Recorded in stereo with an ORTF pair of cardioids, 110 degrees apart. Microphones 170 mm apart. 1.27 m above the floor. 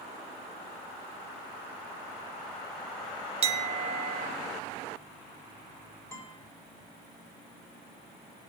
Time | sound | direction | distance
3.4 | a clink | 40° right | 1.1 m
6.1 | a guitar | 15° left | 3 m